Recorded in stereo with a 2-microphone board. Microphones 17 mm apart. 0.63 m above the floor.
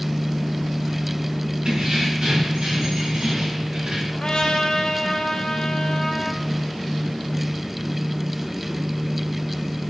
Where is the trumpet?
65° left (ahead or behind), 2 m.